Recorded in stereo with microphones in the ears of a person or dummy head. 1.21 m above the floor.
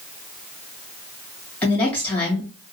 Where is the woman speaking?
10° left (ahead or behind), 2.5 m.